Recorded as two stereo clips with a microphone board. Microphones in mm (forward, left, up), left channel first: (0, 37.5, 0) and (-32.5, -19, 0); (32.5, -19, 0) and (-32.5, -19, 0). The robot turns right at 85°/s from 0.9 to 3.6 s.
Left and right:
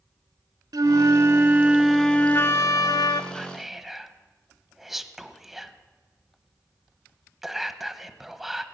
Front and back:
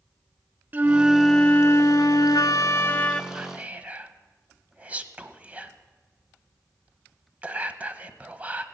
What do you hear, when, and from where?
0.7 s a flute: 120° right, 0.6 m; by 3.2 s 80° left, 0.6 m
3.3 s whispering: 130° left, 1.0 m; by 8.6 s 155° left, 1.0 m